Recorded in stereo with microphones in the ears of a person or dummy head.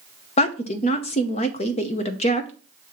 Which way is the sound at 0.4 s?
30° left (ahead or behind).